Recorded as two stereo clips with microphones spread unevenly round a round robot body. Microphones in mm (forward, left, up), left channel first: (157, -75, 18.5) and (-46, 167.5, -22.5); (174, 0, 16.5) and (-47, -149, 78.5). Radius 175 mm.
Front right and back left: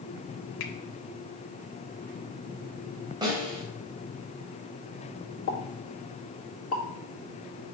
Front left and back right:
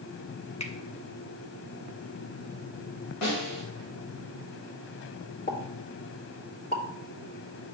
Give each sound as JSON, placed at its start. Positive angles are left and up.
{"t": 0.6, "sound": "a finger snap", "azimuth_deg": -30, "distance_m": 1.2}
{"t": 3.2, "sound": "a snare drum", "azimuth_deg": 50, "distance_m": 3.0}
{"t": 5.5, "sound": "a pop", "azimuth_deg": -5, "distance_m": 1.9}